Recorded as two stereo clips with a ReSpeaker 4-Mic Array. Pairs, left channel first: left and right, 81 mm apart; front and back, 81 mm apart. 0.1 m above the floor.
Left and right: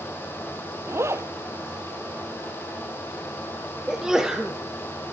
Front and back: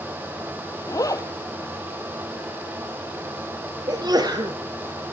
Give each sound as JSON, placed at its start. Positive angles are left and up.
{"t": 0.9, "sound": "a zipper", "azimuth_deg": -40, "distance_m": 0.7}
{"t": 3.9, "sound": "a sneeze", "azimuth_deg": -170, "distance_m": 2.0}